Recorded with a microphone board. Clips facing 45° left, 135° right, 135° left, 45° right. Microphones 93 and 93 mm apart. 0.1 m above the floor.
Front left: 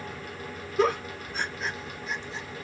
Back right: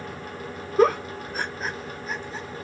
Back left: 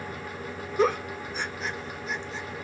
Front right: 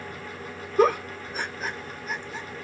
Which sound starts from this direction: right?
A giggle, at 0.8 s.